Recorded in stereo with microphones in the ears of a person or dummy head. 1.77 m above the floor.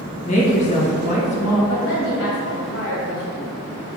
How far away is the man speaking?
About 1.8 m.